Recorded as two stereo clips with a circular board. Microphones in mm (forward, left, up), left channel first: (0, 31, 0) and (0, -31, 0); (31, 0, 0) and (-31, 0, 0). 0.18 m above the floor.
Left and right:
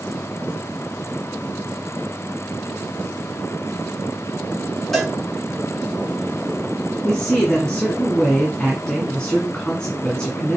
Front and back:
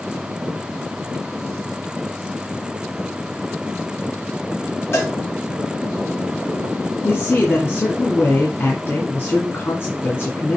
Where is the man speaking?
20° left, 1.7 m.